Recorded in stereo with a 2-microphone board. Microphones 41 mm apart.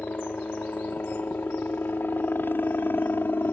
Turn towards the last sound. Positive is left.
turn(degrees=60)  # may be behind; listen again after turning